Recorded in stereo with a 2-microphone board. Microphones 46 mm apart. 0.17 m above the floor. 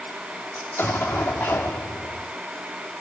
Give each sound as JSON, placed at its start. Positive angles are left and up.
{"t": 0.6, "sound": "an explosion", "side_deg": 55, "distance_m": 3.5}